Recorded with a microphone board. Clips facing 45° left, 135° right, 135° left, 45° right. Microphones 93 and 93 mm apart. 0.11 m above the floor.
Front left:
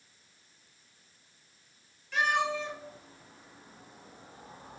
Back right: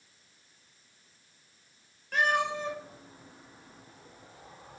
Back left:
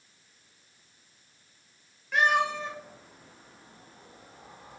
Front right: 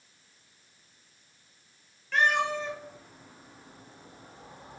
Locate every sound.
2.1 s a cat meowing: 150° right, 1.1 m; by 4.8 s 5° left, 1.0 m